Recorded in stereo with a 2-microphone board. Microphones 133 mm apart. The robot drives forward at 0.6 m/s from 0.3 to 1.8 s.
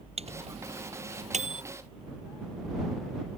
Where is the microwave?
50° right (ahead or behind); by 1.6 s 60° right (ahead or behind).